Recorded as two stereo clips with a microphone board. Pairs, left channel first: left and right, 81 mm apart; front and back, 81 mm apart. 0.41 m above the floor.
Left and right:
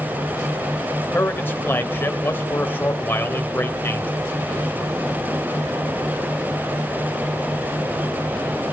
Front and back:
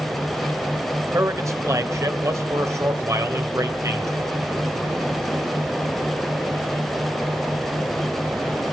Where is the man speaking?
145° left, 2 m.